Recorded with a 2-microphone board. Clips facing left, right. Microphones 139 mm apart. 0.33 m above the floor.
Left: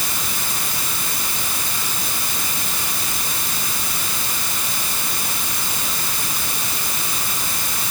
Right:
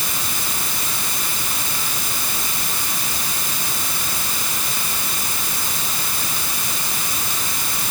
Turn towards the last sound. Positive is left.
No sound to turn to.